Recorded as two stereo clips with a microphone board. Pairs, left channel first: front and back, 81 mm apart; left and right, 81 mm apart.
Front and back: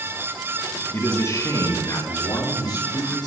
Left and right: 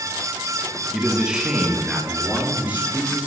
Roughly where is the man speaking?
Ahead.